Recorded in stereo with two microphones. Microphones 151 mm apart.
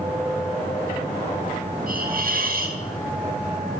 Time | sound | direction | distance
1.9 | a hiss | 75° right (ahead or behind) | 3.5 m